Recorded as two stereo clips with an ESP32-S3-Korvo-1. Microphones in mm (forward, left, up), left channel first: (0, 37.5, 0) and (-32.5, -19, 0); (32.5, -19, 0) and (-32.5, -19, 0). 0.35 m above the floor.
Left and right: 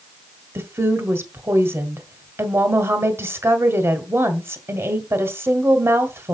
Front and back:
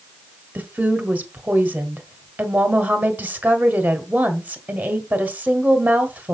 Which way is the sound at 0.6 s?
130° right.